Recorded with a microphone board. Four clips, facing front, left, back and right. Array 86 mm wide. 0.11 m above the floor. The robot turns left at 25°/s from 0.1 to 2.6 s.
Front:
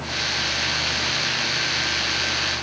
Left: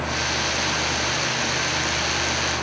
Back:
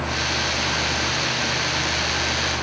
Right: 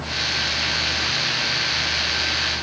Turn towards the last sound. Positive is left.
No sound to turn to.